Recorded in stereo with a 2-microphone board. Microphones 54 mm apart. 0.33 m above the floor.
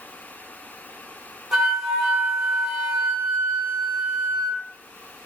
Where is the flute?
10° right (ahead or behind), 4 m.